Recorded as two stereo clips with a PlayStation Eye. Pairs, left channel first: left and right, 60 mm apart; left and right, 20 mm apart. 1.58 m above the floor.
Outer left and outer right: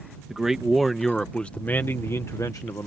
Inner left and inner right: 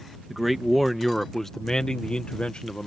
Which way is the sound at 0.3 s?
10° right (ahead or behind).